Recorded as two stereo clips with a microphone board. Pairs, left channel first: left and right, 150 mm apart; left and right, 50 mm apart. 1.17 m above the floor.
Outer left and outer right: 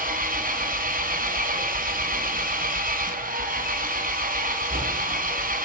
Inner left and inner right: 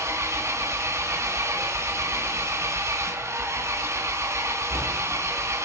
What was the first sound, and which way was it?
An engine running, 70° right (ahead or behind).